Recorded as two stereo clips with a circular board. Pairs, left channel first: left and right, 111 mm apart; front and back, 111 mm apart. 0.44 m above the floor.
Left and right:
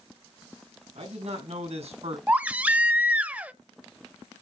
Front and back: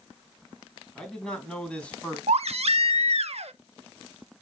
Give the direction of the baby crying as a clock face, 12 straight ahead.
6 o'clock.